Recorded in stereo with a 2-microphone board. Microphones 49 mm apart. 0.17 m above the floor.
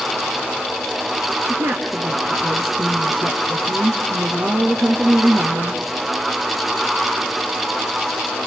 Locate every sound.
1.5 s a woman speaking: 55° right (ahead or behind), 2.5 m